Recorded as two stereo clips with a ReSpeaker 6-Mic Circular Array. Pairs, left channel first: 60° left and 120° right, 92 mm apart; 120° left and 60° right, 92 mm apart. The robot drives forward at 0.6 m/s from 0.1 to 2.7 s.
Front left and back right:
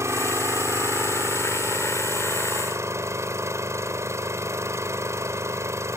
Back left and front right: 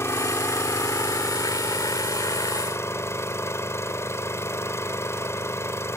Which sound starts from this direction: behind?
An engine running, at 0.0 s.